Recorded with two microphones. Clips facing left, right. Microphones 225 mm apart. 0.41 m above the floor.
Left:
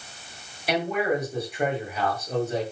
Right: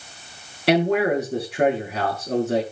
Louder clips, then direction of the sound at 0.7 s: Right 6 dB; 75° right (ahead or behind).